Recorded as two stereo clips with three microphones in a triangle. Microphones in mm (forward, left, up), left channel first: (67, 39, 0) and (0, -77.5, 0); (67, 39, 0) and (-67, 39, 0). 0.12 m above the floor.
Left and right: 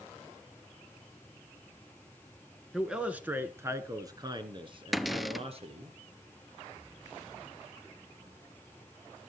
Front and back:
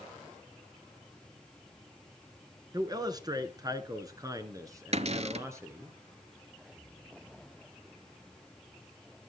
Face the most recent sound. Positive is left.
turn(degrees=150)